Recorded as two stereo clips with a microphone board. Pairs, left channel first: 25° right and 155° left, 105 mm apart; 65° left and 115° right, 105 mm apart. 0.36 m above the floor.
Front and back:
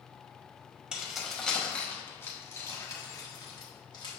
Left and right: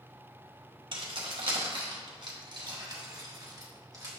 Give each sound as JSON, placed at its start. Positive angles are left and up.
{"t": 0.9, "sound": "keys jangling", "azimuth_deg": -120, "distance_m": 1.4}